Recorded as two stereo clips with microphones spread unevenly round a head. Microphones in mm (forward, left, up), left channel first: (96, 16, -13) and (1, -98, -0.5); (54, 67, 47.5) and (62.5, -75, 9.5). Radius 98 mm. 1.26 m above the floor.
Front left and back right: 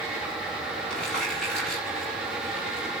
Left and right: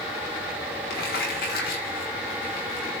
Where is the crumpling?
135° left, 4 m.